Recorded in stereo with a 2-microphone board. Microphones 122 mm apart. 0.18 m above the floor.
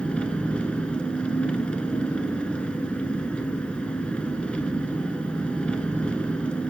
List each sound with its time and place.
0.0 s an engine running: 10° left (ahead or behind), 1.2 m